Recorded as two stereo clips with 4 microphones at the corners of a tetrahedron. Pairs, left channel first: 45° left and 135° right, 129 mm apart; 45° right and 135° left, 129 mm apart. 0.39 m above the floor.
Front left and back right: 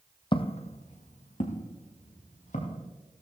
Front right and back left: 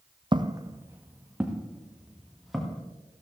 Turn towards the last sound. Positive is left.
turn(degrees=45)